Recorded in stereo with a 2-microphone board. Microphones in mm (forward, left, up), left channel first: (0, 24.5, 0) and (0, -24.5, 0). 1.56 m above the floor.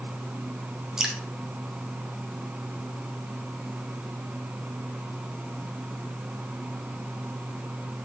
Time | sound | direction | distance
1.0 | dripping | 10° right (ahead or behind) | 1.1 m